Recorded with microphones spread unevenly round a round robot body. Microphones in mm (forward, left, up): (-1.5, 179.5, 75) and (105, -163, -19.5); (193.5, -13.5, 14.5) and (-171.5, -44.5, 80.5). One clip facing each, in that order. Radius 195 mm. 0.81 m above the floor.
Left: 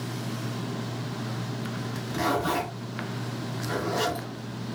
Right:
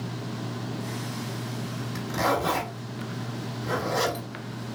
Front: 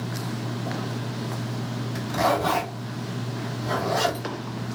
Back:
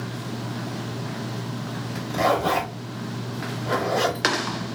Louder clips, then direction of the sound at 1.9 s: Right 1 dB, back 2 dB; 65° right.